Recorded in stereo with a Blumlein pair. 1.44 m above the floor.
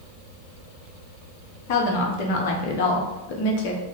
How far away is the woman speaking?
About 1.0 m.